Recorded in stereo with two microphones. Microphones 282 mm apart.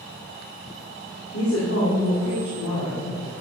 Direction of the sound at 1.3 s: 55° left (ahead or behind).